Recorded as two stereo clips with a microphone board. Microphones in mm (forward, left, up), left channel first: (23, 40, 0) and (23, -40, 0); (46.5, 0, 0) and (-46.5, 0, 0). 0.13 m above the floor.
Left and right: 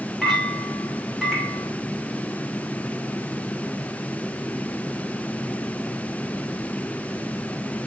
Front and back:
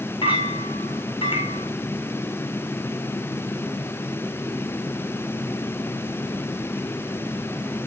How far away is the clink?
About 7 m.